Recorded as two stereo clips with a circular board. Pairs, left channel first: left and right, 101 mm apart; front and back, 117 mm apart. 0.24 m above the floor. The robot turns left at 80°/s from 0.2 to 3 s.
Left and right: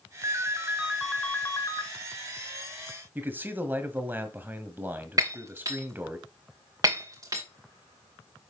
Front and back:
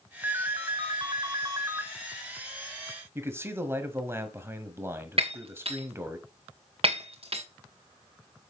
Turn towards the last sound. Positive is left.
turn(degrees=-145)